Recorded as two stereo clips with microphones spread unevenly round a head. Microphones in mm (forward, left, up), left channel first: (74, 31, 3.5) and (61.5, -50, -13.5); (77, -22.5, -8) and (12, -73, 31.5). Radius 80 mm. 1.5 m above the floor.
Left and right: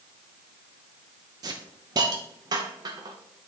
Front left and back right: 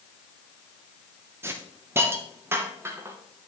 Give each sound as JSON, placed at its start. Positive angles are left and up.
{"t": 1.4, "sound": "a hiss", "azimuth_deg": -150, "distance_m": 0.7}